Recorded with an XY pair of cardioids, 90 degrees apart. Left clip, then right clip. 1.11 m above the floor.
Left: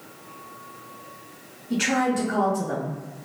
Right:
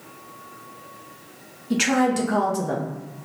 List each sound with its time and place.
1.7 s a woman speaking: 65° right, 0.8 m